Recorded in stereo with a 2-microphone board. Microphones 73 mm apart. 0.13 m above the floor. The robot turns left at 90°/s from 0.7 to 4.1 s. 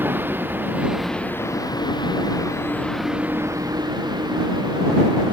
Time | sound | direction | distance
0.0 | a vehicle | 150° right | ?